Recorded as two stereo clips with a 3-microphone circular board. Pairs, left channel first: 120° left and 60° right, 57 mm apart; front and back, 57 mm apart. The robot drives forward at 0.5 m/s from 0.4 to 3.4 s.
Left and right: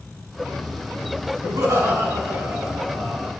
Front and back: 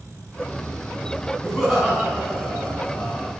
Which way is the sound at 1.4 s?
85° right.